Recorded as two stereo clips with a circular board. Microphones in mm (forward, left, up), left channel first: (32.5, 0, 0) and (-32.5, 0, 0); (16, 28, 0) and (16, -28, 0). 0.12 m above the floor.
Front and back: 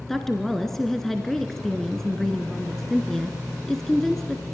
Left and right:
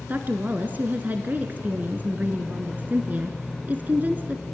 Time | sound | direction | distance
0.1 | a woman speaking | 80° right | 1.2 m